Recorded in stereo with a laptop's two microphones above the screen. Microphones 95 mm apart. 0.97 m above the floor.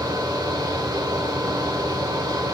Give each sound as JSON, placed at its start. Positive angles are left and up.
{"t": 0.0, "sound": "a fan", "side_deg": -45, "distance_m": 1.1}